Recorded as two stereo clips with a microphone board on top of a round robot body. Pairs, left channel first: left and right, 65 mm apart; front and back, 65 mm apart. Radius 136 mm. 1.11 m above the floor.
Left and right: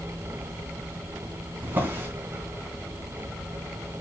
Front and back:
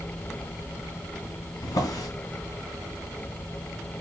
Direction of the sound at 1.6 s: 30° right.